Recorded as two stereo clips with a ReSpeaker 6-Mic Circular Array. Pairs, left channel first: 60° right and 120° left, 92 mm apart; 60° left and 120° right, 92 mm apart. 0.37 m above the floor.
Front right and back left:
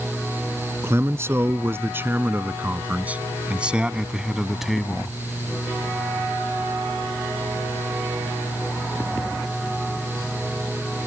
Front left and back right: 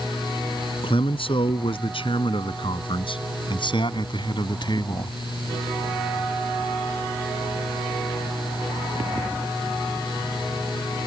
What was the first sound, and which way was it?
A man speaking, 60° left.